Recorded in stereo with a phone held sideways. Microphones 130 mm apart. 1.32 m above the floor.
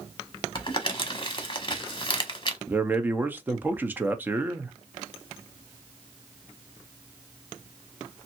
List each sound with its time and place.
0.6 s crumpling: 40° left (ahead or behind), 1.0 m
2.7 s a man speaking: 15° right (ahead or behind), 0.8 m